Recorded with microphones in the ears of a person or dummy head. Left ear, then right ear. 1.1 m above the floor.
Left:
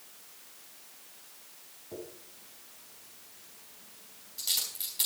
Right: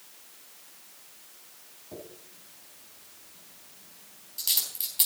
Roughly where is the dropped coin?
Centre.